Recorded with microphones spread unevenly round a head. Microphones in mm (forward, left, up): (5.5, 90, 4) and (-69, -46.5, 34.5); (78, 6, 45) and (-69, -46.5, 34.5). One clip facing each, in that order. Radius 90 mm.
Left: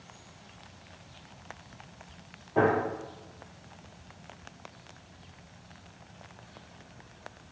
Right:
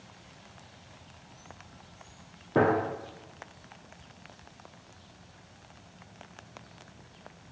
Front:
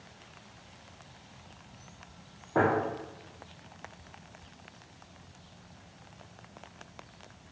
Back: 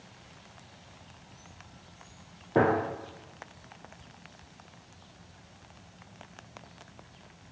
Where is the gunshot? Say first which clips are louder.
Right 1 dB, back 2 dB; 90° right, 0.6 m.